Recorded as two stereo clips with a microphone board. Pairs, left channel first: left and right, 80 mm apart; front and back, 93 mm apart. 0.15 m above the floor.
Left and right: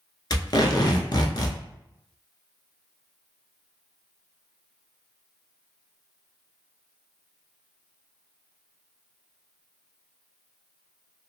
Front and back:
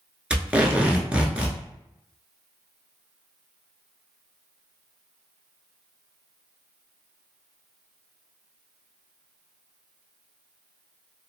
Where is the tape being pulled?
105° left, 0.6 m.